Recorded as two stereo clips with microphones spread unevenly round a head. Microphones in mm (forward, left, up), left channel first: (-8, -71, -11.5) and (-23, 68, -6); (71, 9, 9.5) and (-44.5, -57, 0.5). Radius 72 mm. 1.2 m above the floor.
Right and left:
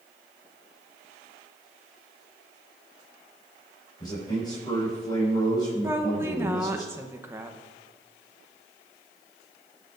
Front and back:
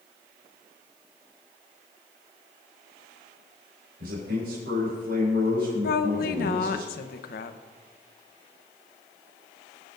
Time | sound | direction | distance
4.0 | a man speaking | 145° right | 6 m
5.8 | a woman speaking | 20° left | 0.9 m